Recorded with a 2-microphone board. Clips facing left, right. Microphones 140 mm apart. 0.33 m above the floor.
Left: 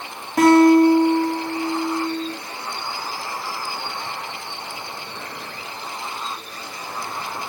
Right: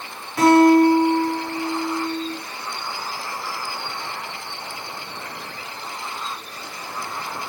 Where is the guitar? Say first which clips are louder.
Left 1 dB; 45° left (ahead or behind), 5.5 m.